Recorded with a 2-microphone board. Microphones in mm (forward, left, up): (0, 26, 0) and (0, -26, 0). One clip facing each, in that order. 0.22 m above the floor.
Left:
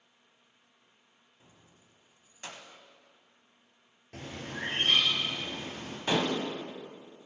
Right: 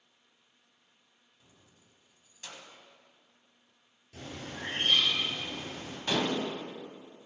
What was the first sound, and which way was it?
Keys jangling, 35° left (ahead or behind).